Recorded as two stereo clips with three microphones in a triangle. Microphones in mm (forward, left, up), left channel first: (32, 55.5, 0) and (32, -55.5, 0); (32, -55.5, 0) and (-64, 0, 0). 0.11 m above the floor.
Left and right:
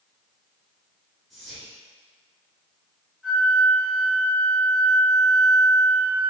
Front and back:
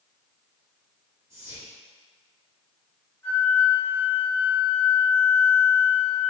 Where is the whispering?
Straight behind, 1.2 m.